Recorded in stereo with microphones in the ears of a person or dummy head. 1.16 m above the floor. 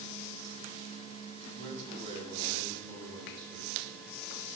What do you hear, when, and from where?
1.4 s a man speaking: 35° right (ahead or behind), 7 m; by 3.9 s 25° right (ahead or behind), 5 m